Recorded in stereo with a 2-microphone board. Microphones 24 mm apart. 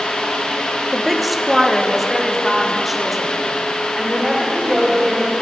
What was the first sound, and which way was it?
A woman speaking, centre (ahead or behind).